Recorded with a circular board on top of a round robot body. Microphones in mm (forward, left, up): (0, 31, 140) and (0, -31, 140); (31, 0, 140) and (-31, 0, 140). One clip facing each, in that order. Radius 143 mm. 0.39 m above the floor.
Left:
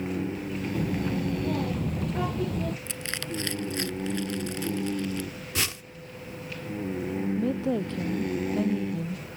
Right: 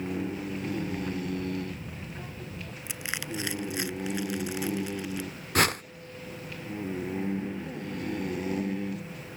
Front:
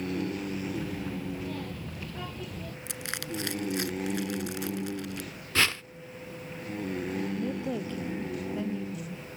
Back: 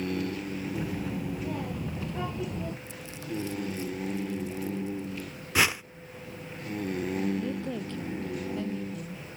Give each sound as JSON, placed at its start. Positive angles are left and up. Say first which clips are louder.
{"t": 0.8, "sound": "a child speaking", "louder": "left 4 dB, back 2 dB", "azimuth_deg": 105}
{"t": 2.9, "sound": "crushing", "louder": "left 1 dB, front 1 dB", "azimuth_deg": -15}
{"t": 5.5, "sound": "a whoosh", "louder": "right 8 dB, back 2 dB", "azimuth_deg": -105}
{"t": 7.4, "sound": "a woman speaking", "louder": "left 8 dB, front 1 dB", "azimuth_deg": 80}